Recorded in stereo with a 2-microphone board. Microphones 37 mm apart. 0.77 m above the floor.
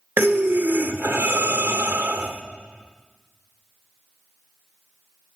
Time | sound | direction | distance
0.2 | breathing | 75° right (ahead or behind) | 1.0 m